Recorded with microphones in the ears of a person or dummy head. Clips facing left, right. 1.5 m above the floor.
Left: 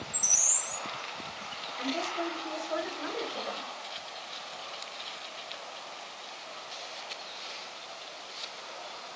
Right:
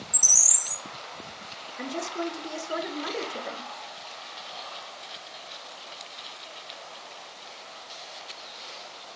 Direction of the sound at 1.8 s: 45° right (ahead or behind).